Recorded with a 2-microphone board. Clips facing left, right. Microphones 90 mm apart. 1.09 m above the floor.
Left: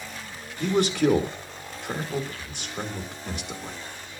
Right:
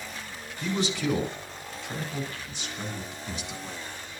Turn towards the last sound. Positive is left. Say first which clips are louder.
# left 7 dB
turn(degrees=60)  # may be behind; listen again after turning